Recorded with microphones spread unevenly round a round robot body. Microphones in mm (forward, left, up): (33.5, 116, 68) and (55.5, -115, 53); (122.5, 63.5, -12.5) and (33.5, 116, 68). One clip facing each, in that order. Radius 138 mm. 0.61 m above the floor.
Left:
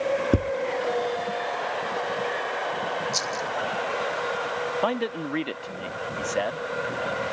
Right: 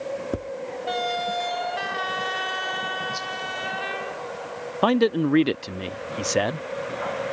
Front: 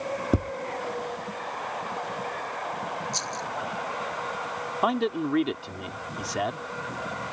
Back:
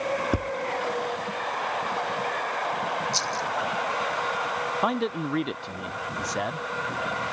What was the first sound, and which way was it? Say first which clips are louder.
Tapping: left 8 dB, front 2 dB; 40° left.